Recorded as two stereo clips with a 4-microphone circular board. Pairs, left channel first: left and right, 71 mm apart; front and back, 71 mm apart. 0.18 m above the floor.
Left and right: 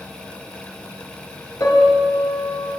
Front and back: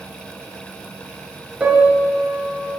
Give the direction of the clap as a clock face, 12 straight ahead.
No clap in this recording.